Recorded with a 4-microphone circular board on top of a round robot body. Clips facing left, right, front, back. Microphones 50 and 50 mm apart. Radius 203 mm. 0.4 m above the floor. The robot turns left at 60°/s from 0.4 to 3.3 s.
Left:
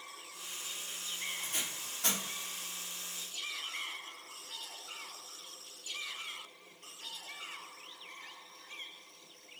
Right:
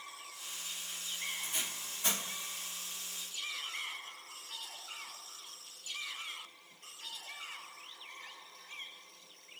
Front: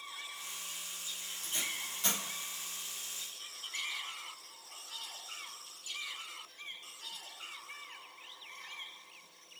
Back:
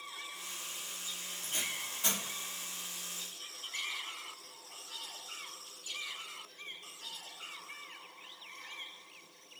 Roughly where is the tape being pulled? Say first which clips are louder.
Even, even; behind left.